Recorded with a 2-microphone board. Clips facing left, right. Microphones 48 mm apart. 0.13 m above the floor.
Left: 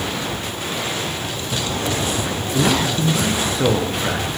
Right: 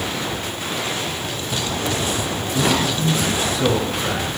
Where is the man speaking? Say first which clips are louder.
Left 1 dB; 30° left (ahead or behind), 2.5 m.